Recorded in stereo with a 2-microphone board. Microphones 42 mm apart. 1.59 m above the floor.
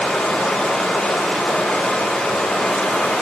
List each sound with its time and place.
0.0 s running water: 15° left (ahead or behind), 3 m